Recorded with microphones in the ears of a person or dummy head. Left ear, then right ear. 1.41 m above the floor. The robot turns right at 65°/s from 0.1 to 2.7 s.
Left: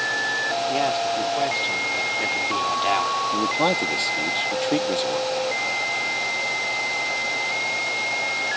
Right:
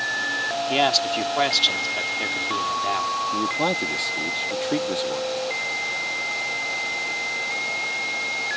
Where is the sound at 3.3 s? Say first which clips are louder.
Left 2 dB; 10° left (ahead or behind).